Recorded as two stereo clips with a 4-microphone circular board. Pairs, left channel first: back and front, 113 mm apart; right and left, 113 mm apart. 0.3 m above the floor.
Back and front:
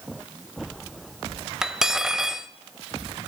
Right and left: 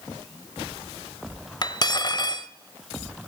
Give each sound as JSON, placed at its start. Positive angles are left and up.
{"t": 1.6, "sound": "cutlery clinking", "azimuth_deg": -80, "distance_m": 0.5}